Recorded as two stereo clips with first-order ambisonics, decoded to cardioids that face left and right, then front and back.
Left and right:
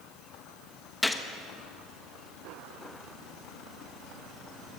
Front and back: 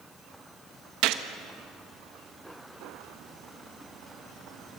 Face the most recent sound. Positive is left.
turn(degrees=170)